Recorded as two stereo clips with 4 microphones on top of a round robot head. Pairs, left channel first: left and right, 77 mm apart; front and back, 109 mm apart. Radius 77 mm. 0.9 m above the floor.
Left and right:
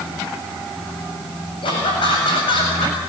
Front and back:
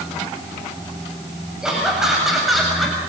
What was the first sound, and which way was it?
Laughter, 95° left.